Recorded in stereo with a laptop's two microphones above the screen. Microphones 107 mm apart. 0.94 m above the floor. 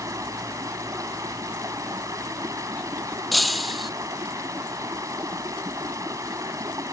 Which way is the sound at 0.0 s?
30° right (ahead or behind).